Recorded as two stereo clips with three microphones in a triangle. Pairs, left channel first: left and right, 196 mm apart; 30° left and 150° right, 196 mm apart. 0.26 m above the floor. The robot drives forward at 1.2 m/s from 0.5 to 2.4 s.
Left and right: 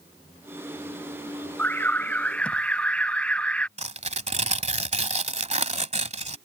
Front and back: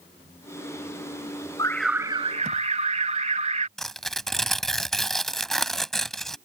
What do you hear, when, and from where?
1.6 s an alarm: 25° left; by 3.7 s 170° left
3.8 s tearing paper: 60° right